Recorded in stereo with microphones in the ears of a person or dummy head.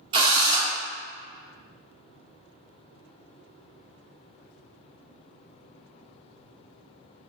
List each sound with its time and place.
0.1 s a drill: 25° right (ahead or behind), 1.0 m